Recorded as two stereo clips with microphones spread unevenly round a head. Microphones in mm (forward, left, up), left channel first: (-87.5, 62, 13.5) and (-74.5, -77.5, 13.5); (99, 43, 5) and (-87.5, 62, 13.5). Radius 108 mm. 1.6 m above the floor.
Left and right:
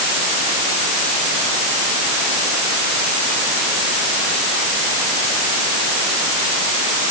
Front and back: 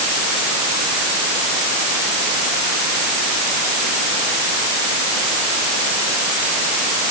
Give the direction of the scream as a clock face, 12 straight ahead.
No scream in this recording.